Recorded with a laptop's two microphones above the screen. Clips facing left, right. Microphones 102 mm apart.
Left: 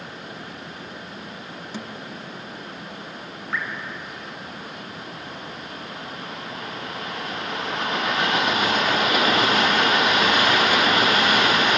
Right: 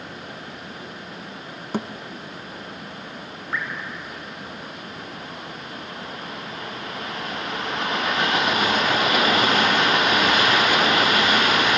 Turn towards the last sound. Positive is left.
turn(degrees=0)  # may be behind; listen again after turning